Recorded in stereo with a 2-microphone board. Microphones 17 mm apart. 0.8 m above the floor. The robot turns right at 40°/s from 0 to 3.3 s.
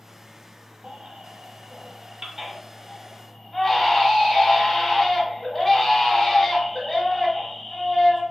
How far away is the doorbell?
I don't hear a doorbell.